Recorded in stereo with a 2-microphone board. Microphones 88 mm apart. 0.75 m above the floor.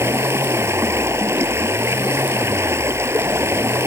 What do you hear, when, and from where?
0.0 s running water: 30° right (ahead or behind)